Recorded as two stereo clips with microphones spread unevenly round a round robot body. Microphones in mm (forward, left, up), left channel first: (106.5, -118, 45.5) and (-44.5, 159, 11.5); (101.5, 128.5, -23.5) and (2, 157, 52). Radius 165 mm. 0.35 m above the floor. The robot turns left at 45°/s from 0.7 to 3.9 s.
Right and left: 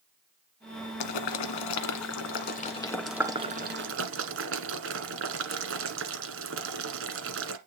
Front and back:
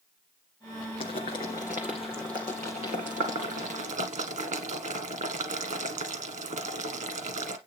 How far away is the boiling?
About 1.5 m.